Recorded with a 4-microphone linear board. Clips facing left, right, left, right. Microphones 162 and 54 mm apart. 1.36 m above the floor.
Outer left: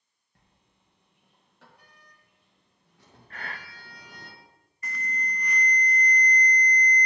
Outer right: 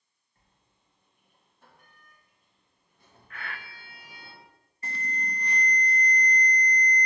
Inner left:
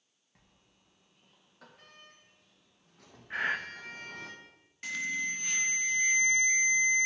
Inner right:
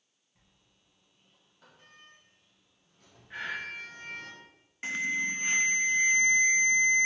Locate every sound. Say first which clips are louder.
0.3 s a sliding door: outer left 3 dB, inner left 3 dB; 75° left (ahead or behind), 1.9 m
3.3 s breathing: outer left 1 dB, inner left 5 dB; 35° left (ahead or behind), 0.7 m
4.8 s an alarm: even, inner right 3 dB; 30° right (ahead or behind), 0.6 m